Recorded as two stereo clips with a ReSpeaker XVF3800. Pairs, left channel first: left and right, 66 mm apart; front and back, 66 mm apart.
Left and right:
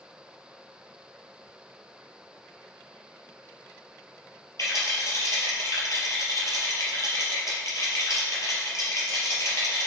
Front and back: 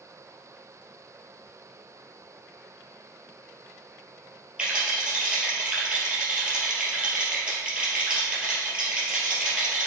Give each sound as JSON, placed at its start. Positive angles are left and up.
{"t": 4.6, "sound": "a rattle", "azimuth_deg": 110, "distance_m": 3.0}